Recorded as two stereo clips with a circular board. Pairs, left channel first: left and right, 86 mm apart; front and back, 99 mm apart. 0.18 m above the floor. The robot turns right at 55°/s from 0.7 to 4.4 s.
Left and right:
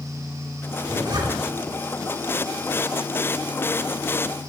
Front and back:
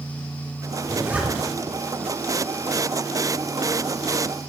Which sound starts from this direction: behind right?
A zipper, at 0.8 s.